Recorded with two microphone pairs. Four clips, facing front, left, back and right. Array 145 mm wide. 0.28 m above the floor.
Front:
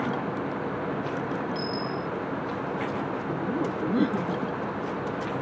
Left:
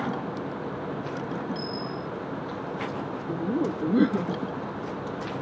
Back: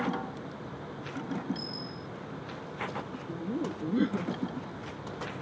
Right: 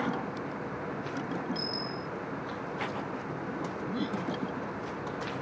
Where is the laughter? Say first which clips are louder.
Left 9 dB, front 3 dB; 75° left.